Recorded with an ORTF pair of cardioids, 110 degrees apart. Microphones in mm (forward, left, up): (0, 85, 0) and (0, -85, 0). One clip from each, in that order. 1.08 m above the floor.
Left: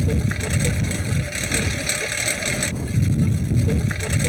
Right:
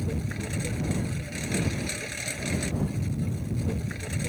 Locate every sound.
0.0 s a lawn mower: 55° left